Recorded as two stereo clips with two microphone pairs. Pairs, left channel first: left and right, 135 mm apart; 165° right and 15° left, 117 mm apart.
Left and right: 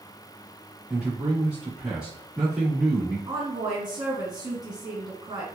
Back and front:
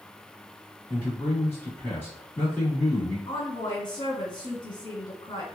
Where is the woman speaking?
135° right, 1.9 m.